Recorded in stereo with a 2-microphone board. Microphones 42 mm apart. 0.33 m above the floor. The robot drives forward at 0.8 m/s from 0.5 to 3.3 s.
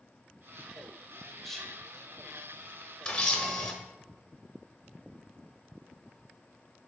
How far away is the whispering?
About 0.9 m.